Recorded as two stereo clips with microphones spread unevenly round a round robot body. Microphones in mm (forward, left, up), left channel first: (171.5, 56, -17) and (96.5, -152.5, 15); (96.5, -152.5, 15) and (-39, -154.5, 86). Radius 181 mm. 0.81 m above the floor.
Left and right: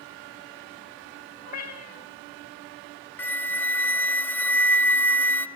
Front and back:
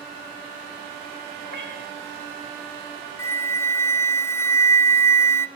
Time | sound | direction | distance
1.4 | a cat meowing | 140° left | 1.0 m
3.2 | a flute | straight ahead | 1.1 m